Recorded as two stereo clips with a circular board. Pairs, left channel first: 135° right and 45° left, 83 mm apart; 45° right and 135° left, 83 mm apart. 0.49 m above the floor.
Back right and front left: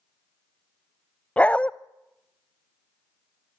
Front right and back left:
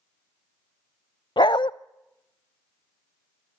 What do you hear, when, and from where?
1.4 s a dog barking: 60° right, 0.5 m